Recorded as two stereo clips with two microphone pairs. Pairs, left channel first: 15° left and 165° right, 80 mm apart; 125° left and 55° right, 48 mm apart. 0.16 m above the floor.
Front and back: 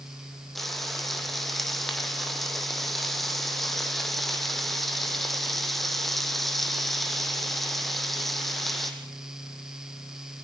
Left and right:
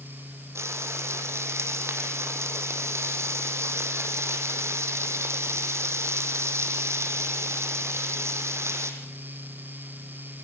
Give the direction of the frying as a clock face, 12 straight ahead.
2 o'clock.